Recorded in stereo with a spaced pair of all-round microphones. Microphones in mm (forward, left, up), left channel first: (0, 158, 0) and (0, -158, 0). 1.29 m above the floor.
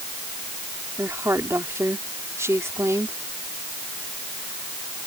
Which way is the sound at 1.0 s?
10° right (ahead or behind).